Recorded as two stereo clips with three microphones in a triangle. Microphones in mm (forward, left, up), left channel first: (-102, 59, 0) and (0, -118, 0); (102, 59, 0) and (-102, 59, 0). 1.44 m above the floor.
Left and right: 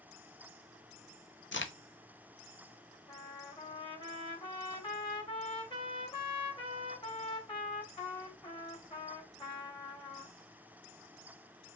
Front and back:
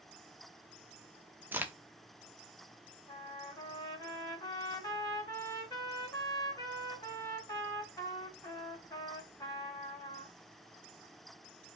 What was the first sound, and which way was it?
A crack, 100° left.